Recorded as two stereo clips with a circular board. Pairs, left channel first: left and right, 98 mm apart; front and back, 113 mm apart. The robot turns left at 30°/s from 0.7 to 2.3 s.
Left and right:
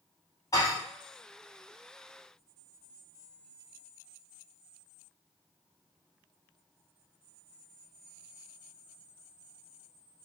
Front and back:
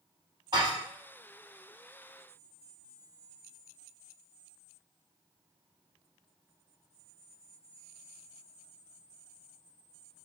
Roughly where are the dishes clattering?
Behind left.